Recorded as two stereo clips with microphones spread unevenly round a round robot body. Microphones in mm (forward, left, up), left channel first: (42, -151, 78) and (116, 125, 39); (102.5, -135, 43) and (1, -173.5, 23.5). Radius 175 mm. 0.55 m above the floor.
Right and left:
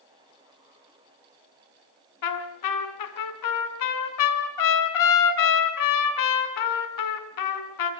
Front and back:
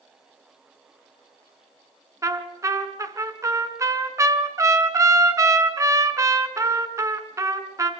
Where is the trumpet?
95° right, 3 m.